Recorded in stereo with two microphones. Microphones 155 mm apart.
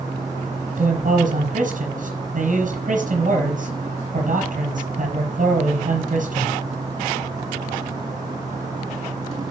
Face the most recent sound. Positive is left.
turn(degrees=-55)  # may be behind; listen again after turning